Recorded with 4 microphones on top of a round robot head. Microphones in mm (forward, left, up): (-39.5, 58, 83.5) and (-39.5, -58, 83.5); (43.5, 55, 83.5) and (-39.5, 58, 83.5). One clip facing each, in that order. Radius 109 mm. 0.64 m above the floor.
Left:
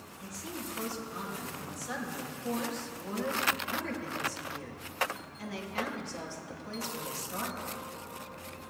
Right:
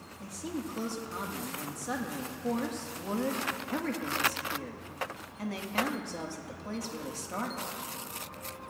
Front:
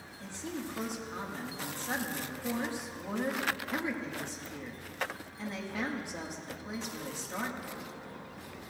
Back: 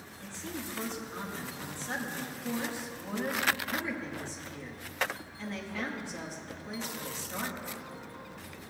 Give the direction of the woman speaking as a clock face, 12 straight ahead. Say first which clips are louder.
Right 5 dB, front 1 dB; 2 o'clock.